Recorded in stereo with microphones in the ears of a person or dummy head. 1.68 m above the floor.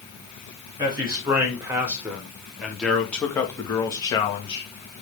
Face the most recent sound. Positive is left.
turn(degrees=35)  # may be behind; listen again after turning